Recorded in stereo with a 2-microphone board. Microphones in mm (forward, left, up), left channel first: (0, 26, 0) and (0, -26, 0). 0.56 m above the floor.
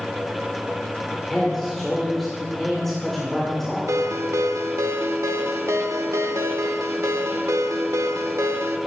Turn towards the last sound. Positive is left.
turn(degrees=-65)  # may be behind; listen again after turning